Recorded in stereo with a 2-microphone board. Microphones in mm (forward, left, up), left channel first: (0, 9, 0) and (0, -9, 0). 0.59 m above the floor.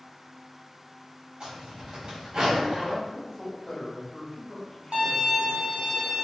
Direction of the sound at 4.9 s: 85° right.